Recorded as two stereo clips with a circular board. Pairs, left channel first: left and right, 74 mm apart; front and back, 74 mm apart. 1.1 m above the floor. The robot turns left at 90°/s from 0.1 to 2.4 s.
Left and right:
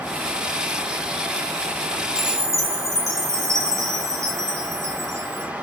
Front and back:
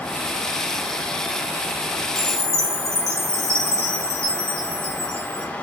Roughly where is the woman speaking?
No woman speaking in this recording.